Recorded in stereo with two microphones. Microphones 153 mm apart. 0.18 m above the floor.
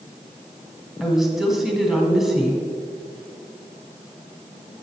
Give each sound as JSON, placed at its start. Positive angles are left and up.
{"t": 1.0, "sound": "a woman speaking", "side_deg": -5, "distance_m": 1.1}